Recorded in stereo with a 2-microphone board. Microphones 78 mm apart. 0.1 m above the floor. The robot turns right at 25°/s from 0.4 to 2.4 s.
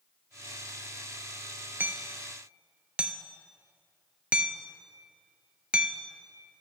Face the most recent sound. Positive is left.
turn(degrees=-15)  # may be behind; listen again after turning